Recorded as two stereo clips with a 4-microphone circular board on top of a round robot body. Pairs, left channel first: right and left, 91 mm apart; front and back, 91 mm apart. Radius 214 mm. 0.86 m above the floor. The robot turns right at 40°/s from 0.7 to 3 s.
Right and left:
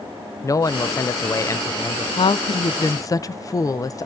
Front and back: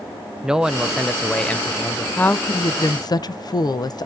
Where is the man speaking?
105° right, 0.5 m; by 2.1 s 50° right, 0.5 m.